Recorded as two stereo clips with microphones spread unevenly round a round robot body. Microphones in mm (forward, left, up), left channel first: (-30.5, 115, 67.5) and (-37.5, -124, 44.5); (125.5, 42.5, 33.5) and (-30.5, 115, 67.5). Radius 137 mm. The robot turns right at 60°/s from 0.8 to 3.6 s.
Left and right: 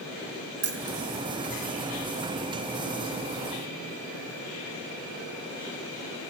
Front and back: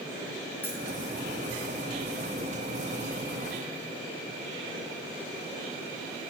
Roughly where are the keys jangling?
Right.